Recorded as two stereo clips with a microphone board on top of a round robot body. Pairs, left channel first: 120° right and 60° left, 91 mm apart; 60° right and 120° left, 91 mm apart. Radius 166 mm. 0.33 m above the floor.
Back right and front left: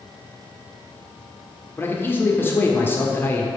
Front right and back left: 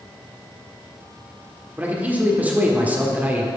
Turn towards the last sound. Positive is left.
turn(degrees=-175)